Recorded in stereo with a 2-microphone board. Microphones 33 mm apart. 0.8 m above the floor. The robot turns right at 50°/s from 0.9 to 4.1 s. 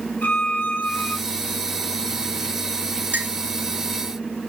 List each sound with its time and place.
0.2 s a violin: 85° left, 3.5 m; by 1.1 s 70° left (ahead or behind), 3.5 m
3.1 s a clink: 75° right (ahead or behind), 2 m; by 3.3 s 65° right (ahead or behind), 2 m